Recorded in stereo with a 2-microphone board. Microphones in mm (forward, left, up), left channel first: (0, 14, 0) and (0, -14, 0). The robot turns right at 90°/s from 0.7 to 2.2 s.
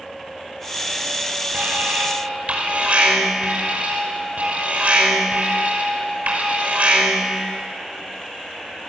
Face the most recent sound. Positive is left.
turn(degrees=-60)